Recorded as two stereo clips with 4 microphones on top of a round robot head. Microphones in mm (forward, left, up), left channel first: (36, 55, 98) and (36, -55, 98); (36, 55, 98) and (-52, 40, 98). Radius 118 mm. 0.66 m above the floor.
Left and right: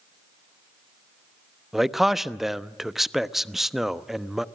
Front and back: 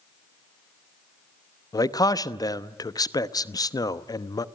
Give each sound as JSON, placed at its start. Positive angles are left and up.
{"t": 1.7, "sound": "a man speaking", "azimuth_deg": -5, "distance_m": 1.1}